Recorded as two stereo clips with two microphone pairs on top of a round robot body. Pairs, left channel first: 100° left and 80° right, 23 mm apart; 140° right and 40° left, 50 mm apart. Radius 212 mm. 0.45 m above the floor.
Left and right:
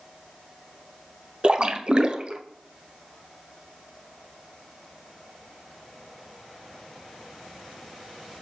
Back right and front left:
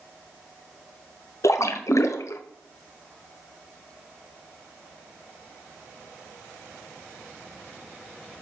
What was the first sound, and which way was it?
A splash, 135° right.